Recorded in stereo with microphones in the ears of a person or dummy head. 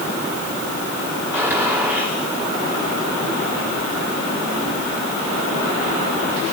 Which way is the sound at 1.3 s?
10° right (ahead or behind).